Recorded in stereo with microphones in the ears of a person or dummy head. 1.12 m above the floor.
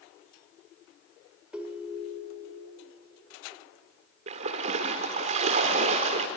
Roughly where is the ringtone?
Centre.